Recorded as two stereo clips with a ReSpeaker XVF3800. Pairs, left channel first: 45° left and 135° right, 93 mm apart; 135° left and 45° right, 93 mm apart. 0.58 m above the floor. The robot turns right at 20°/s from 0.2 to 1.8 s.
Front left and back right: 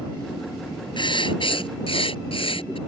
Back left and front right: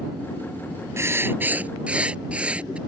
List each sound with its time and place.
1.0 s writing: 15° left; by 2.8 s 30° left